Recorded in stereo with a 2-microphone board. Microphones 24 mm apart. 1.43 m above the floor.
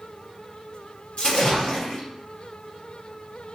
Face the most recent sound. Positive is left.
turn(degrees=50)  # may be behind; listen again after turning